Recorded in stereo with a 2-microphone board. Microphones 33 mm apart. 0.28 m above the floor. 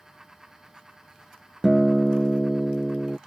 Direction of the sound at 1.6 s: 5° right (ahead or behind).